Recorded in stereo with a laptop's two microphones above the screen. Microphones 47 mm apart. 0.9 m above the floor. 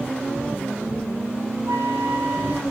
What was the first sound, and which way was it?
A flute, 65° right (ahead or behind).